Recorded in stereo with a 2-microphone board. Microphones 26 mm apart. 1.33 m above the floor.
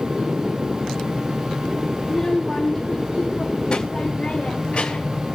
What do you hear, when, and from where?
2.0 s a child speaking: 10° left (ahead or behind), 1.5 m; by 5.2 s 45° left (ahead or behind), 3 m